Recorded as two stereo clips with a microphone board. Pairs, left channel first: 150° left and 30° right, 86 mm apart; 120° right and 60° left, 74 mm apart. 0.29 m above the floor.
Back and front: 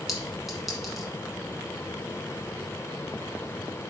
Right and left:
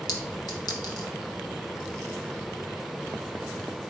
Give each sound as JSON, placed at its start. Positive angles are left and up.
{"t": 0.1, "sound": "a clink", "azimuth_deg": -120, "distance_m": 1.6}